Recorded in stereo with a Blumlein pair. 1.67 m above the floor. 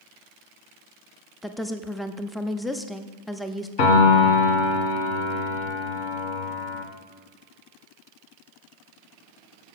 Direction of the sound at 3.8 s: 45° left.